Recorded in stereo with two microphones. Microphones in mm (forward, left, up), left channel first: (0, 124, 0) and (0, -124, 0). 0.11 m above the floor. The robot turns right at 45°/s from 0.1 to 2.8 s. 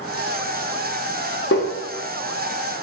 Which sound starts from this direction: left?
Tapping, at 1.5 s.